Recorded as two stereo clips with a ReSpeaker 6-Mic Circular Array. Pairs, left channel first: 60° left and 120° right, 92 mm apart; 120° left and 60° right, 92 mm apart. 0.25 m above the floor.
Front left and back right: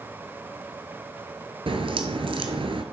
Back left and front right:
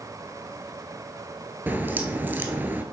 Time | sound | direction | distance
1.7 | a crack | 130° right | 1.2 m